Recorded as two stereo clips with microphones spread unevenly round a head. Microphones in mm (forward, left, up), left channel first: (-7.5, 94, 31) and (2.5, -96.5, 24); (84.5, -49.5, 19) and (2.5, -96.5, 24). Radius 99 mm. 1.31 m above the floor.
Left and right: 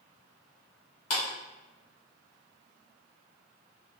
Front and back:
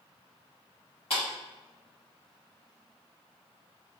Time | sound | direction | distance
1.1 | a clap | 90° left | 1.4 m